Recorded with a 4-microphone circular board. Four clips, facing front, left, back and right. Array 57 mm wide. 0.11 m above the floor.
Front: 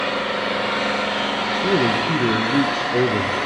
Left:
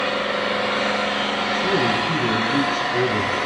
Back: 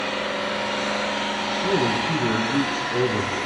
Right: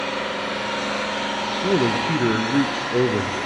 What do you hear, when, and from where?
0.0 s an engine running: 45° left, 6.5 m
1.5 s a man speaking: 50° right, 1.3 m